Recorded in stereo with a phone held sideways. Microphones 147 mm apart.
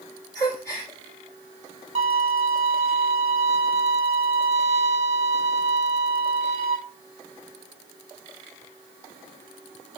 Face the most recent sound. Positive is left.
turn(degrees=-45)  # may be behind; listen again after turning